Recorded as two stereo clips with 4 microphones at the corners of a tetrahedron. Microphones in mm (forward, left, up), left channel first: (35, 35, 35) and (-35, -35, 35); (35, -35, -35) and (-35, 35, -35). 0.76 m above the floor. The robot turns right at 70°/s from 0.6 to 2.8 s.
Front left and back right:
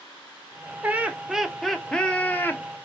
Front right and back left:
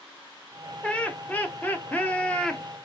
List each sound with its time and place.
0.8 s laughter: 100° right, 0.6 m; by 2.6 s 25° left, 0.6 m